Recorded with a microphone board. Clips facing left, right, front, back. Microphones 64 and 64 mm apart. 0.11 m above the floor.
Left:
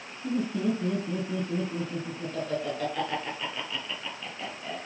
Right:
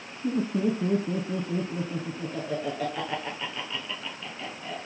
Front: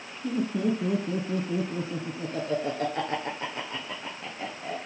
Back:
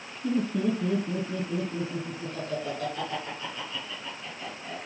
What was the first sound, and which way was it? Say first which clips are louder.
Laughter: right 2 dB, even; 90° right.